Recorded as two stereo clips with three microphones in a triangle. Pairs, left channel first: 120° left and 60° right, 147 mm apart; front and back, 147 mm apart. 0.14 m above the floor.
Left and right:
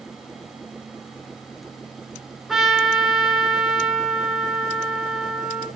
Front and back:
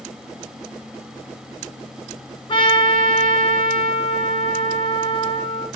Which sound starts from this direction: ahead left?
A trumpet, at 2.5 s.